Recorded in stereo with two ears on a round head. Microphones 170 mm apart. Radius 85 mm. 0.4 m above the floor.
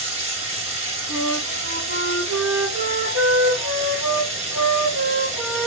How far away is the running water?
About 2.5 m.